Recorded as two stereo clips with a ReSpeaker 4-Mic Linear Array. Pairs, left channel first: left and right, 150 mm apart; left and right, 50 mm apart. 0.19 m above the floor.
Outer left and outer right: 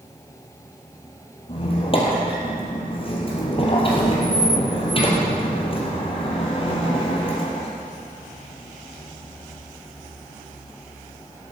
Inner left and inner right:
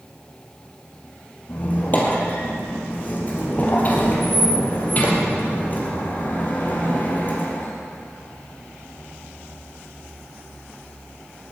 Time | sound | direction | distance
1.5 | a squeak | 35° left (ahead or behind) | 2.5 m